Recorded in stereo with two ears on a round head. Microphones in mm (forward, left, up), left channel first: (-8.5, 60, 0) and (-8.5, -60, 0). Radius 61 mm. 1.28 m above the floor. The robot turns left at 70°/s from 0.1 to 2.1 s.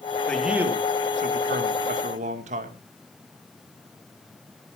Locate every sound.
0.3 s a man speaking: 10° left, 2 m; by 2.8 s 120° right, 2 m